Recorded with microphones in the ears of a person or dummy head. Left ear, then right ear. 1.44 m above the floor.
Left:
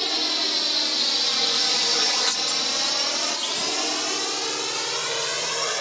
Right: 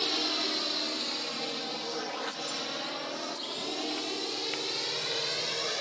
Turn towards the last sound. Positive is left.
turn(degrees=40)  # may be behind; listen again after turning